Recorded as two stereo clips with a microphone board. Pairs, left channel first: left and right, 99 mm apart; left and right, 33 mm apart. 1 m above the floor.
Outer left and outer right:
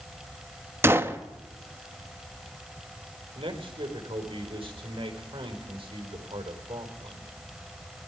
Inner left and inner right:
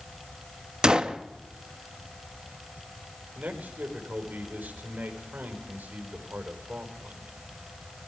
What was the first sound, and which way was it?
A gunshot, 25° right (ahead or behind).